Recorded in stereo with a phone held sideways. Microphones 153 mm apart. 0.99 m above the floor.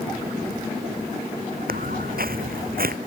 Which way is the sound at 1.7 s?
70° right (ahead or behind).